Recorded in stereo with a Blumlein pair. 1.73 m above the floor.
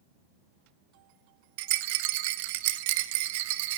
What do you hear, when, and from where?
1.6 s a rattle: 50° right, 0.8 m